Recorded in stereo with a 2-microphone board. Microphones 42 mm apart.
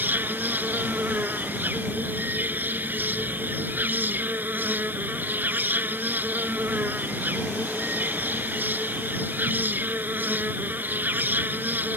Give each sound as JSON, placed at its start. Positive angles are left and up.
{"t": 0.0, "sound": "an insect", "side_deg": -45}